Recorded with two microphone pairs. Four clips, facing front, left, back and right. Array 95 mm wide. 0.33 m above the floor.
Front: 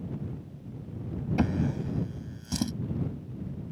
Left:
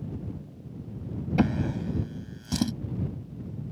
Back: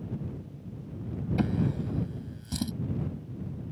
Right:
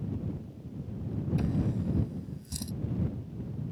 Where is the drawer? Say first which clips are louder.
Left 8 dB, front 1 dB; 65° left.